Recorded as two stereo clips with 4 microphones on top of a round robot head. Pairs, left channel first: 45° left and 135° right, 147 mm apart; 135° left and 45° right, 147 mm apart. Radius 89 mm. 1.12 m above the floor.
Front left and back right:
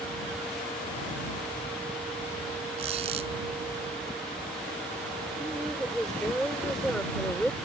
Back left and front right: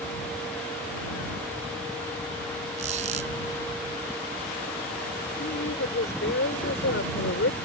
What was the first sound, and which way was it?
A squeak, 85° right.